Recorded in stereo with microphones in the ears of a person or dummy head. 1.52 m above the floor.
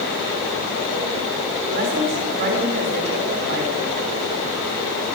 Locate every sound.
1.7 s a woman speaking: 45° right (ahead or behind), 6 m